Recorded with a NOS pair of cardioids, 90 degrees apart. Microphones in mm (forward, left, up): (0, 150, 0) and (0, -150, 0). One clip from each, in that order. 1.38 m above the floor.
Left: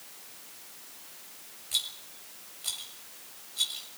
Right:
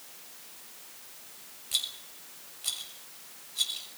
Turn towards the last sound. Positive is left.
turn(degrees=-15)